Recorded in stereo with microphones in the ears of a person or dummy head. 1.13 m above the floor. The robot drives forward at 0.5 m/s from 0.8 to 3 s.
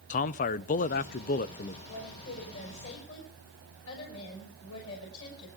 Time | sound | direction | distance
0.1 | a man speaking | 40° left (ahead or behind) | 0.5 m
1.9 | a woman speaking | 70° left (ahead or behind) | 6 m